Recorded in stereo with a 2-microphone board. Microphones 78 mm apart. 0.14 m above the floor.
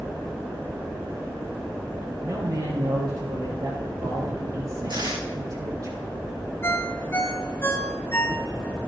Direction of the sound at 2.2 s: 55° right (ahead or behind).